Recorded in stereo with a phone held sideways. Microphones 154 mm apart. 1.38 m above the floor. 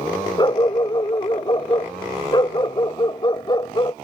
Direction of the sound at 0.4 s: 30° left (ahead or behind).